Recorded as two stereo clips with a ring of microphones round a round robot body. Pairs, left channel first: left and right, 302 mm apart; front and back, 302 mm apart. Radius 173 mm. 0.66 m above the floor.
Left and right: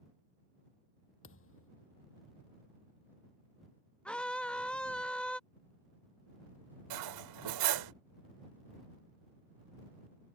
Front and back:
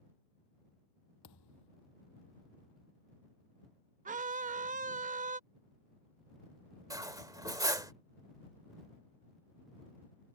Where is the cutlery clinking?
100° right.